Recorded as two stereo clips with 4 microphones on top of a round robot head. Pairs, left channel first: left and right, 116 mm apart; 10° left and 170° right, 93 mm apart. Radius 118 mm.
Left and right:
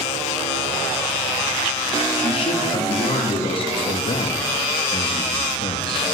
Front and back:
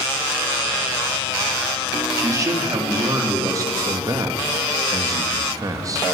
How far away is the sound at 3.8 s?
About 2.5 m.